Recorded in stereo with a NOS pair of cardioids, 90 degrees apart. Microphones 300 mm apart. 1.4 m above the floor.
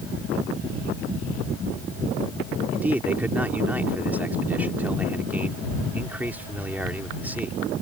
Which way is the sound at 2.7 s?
5° right.